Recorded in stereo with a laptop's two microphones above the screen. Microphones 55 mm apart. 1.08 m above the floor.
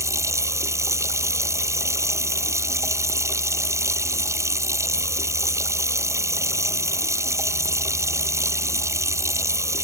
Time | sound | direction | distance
0.0 | running water | 60° right (ahead or behind) | ?